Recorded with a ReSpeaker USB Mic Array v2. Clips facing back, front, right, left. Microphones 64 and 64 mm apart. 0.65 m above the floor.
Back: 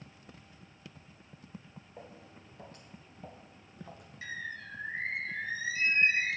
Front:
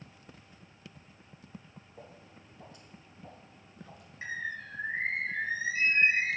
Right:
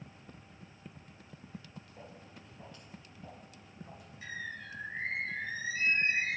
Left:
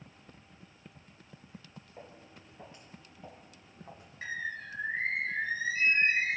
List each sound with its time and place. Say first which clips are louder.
2.0 s footsteps: back 1 dB, left 3 dB; 155° left, 3.5 m; by 4.1 s 140° left, 1.5 m
4.2 s a bird: front 4 dB, left 5 dB; 60° left, 1.1 m